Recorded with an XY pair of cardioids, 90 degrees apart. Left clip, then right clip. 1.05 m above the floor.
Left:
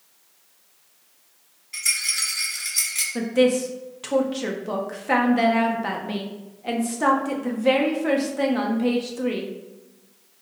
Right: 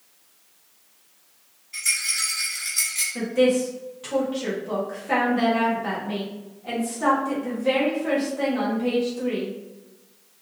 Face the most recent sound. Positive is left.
turn(degrees=55)